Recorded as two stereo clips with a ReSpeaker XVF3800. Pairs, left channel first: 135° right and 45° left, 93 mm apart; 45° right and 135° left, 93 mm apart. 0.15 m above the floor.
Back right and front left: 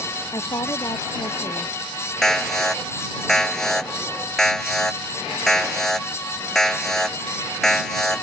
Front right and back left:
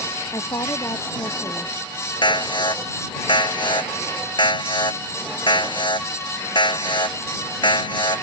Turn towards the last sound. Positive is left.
turn(degrees=-50)